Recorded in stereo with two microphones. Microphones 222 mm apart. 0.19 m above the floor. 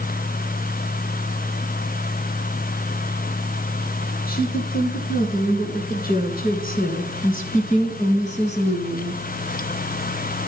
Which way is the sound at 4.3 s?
45° left (ahead or behind).